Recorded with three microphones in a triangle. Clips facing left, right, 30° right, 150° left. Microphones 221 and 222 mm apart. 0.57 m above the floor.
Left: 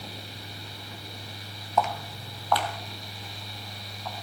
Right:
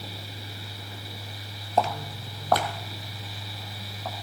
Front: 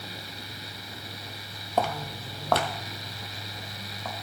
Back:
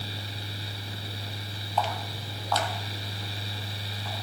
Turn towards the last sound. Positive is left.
turn(degrees=-55)